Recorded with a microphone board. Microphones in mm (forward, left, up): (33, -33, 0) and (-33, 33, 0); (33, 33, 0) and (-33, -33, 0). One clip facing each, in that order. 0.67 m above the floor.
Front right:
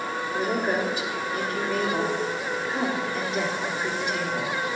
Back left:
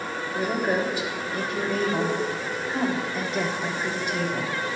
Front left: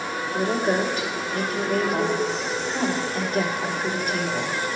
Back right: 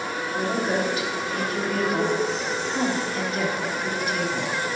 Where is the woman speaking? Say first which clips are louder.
Back left 1 dB, front left 2 dB; 15° left, 2.5 m.